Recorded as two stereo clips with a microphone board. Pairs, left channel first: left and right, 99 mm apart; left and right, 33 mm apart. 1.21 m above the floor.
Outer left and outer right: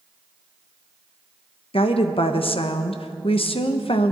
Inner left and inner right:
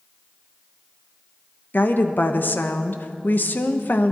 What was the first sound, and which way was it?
A woman speaking, 70° left (ahead or behind).